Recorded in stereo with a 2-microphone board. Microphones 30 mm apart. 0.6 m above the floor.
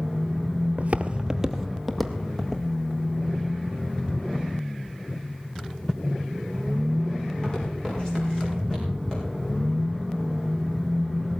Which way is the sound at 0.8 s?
50° right (ahead or behind).